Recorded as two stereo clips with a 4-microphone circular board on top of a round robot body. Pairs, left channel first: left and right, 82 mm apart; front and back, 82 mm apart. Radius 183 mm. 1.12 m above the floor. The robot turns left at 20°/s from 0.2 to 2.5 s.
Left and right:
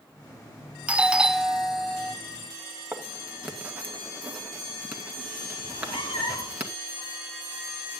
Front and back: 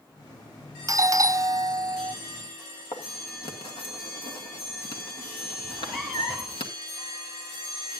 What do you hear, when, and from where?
0.9 s a doorbell: 160° right, 0.6 m; by 2.1 s 175° left, 0.6 m
2.9 s writing: 15° right, 1.9 m
5.6 s a cat meowing: 80° left, 1.6 m